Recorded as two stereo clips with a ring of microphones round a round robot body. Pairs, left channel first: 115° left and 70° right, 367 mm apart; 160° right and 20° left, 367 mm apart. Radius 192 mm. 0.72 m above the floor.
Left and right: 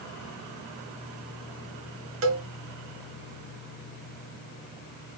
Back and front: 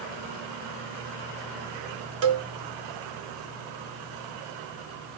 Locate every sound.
2.2 s a cowbell: 15° right, 0.7 m